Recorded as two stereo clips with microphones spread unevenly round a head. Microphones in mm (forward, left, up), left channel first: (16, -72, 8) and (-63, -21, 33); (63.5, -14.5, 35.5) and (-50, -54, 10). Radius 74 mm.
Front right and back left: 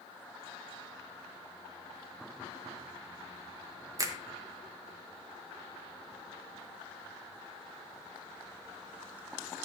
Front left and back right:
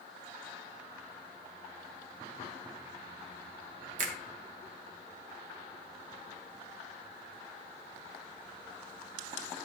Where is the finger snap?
160° right, 1.5 m.